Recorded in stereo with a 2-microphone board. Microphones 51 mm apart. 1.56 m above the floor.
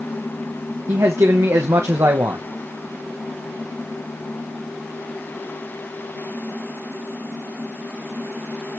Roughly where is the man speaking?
Right.